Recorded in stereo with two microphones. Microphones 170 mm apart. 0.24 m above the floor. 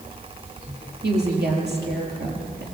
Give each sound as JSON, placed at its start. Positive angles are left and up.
{"t": 1.0, "sound": "a woman speaking", "side_deg": -75, "distance_m": 6.5}